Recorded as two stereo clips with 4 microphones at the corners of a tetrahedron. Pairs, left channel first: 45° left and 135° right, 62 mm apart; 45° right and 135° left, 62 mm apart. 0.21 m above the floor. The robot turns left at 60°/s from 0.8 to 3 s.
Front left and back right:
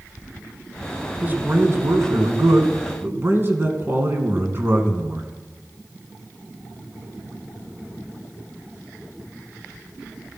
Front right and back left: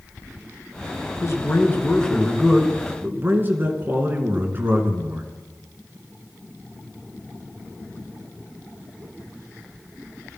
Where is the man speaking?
70° right, 2.5 m; by 5.3 s straight behind, 2.5 m.